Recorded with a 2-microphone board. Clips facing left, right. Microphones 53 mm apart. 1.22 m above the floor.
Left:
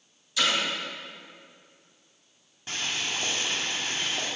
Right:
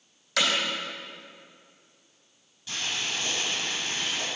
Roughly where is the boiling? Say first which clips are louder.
Even; left.